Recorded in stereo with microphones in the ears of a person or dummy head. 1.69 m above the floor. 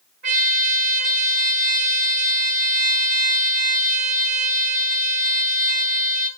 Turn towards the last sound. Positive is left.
turn(degrees=-45)  # may be behind; listen again after turning